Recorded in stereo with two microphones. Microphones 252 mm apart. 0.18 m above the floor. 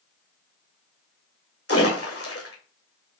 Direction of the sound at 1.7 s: 65° left (ahead or behind).